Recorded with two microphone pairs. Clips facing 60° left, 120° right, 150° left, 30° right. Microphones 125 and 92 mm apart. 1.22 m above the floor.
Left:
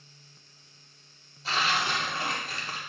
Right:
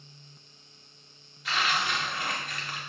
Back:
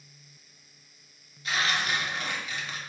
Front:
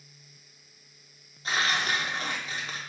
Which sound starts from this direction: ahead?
Tearing paper, at 1.4 s.